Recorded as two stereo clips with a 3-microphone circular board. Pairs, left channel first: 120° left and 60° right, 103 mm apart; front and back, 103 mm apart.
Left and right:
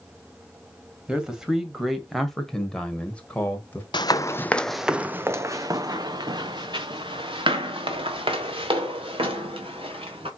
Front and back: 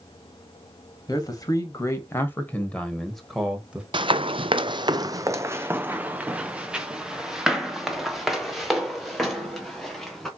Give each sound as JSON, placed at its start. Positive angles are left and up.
{"t": 1.1, "sound": "a man speaking", "azimuth_deg": 20, "distance_m": 1.8}
{"t": 3.9, "sound": "running footsteps", "azimuth_deg": 155, "distance_m": 0.5}